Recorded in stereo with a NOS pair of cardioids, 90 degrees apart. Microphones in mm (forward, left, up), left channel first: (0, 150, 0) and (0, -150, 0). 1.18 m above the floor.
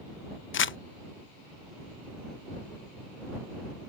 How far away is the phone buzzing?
I don't hear a phone buzzing.